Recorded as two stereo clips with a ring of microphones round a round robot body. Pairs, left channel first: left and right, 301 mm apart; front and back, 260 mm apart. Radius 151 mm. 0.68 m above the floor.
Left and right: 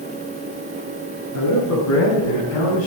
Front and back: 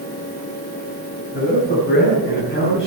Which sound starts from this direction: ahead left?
A man speaking, at 1.3 s.